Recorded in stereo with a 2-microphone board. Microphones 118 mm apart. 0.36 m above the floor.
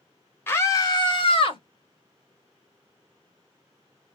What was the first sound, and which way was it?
A scream, 20° left (ahead or behind).